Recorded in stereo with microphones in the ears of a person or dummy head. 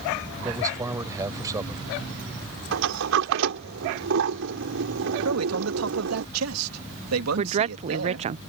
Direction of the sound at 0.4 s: 15° right (ahead or behind).